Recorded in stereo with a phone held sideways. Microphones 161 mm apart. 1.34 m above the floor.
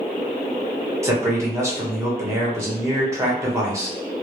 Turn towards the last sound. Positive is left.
turn(degrees=-15)  # may be behind; listen again after turning